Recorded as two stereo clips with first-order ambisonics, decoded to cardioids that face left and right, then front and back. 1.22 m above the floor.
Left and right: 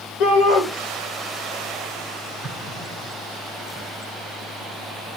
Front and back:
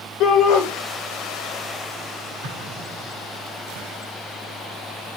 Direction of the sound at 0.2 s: 45° left.